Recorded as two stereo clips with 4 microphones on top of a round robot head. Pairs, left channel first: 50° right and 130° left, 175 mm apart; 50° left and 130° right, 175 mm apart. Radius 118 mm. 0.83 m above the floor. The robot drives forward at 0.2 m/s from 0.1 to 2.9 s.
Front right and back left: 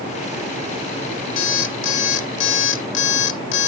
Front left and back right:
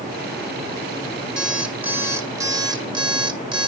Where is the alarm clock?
45° right, 0.8 m; by 3.7 s 65° right, 0.7 m.